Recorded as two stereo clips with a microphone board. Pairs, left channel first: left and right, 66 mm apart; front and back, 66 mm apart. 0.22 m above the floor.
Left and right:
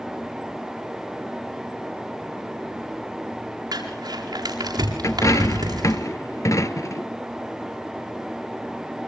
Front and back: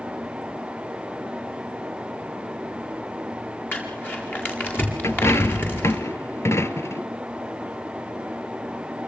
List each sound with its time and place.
3.7 s crumpling: 65° right, 8.5 m
5.0 s a dropped coin: 50° left, 1.2 m